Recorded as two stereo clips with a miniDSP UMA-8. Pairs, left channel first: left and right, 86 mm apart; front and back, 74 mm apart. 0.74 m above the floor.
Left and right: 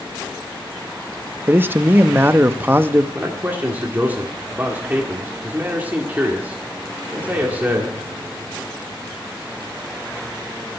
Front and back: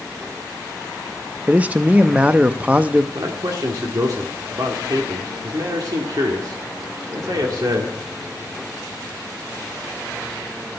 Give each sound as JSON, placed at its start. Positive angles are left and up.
{"t": 1.5, "sound": "a man speaking", "azimuth_deg": -130, "distance_m": 0.6}
{"t": 3.1, "sound": "a man speaking", "azimuth_deg": -155, "distance_m": 1.7}